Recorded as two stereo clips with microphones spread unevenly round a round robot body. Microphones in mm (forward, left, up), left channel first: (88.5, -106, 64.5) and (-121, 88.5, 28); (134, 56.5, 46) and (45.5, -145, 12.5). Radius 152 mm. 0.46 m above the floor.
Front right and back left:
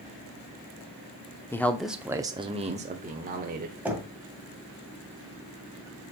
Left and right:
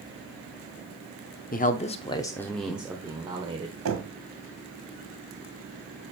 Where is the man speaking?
45° left, 0.8 m; by 3.8 s 175° right, 1.3 m.